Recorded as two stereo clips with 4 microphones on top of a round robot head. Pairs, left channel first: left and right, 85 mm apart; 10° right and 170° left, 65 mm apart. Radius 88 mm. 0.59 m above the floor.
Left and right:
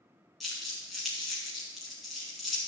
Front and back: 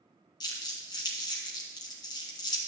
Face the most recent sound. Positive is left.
turn(degrees=0)